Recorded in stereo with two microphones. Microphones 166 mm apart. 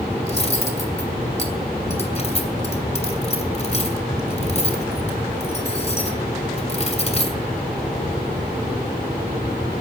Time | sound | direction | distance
0.2 | cutlery clinking | 40° left (ahead or behind) | 2.5 m